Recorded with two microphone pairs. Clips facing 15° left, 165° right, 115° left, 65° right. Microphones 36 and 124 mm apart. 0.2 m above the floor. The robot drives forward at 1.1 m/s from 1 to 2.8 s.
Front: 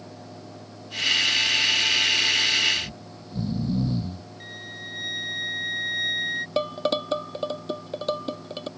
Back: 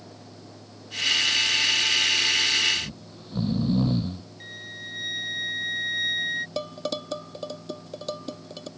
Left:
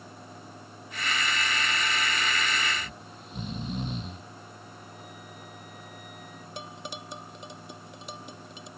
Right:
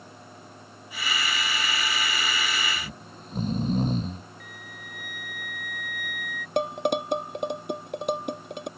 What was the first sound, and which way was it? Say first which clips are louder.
Snoring: front 1 dB, right 1 dB; 120° right.